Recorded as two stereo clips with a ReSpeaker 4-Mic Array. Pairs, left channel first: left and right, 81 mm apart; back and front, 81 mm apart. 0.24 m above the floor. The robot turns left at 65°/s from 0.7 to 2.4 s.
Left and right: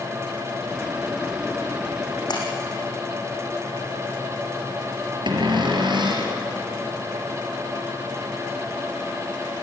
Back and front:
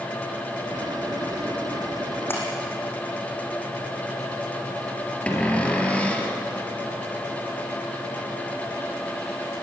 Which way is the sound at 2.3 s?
120° left.